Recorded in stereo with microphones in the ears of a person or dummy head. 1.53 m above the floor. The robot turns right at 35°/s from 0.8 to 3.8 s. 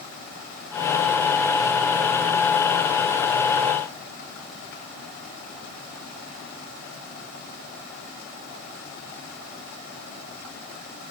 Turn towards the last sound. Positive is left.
No sound to turn to.